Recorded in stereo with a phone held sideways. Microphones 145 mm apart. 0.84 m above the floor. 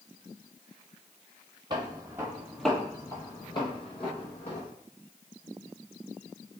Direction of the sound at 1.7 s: 35° right (ahead or behind).